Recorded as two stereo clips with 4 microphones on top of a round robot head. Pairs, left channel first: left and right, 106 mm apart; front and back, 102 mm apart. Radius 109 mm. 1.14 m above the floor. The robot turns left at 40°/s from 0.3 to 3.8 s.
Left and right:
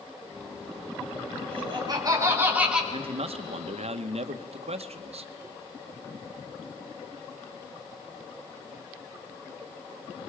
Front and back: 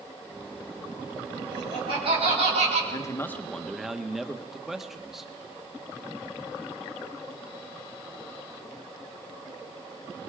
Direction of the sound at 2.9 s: 60° right.